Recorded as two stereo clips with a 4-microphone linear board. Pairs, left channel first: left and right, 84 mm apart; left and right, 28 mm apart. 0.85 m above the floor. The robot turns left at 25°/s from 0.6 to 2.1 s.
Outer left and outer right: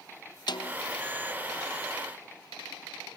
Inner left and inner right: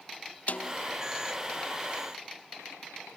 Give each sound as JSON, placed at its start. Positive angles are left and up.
{"t": 0.5, "sound": "a snare drum", "side_deg": 60, "distance_m": 0.8}